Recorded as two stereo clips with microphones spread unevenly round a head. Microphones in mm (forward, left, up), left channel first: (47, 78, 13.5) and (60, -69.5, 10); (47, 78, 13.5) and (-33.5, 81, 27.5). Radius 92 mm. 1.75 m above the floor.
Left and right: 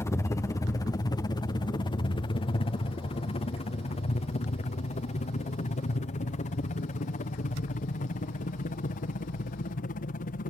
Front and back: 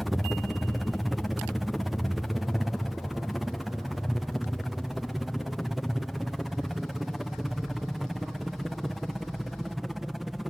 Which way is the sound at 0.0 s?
60° left.